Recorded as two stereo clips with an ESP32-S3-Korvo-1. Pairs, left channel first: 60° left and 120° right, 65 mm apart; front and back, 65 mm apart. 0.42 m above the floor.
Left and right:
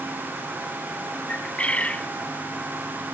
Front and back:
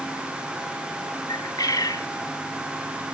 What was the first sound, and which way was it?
A bird, 10° right.